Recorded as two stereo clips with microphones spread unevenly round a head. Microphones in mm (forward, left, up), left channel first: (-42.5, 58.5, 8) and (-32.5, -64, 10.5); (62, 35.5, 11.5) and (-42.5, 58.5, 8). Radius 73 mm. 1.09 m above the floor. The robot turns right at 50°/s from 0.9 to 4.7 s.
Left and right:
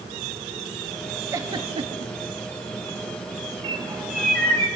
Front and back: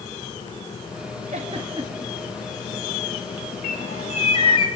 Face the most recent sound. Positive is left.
turn(degrees=30)